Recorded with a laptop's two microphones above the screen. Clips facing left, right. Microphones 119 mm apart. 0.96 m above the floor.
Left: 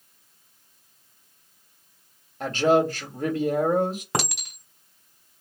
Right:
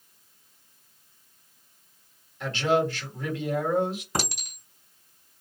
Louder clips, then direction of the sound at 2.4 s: Left 4 dB; 40° left (ahead or behind).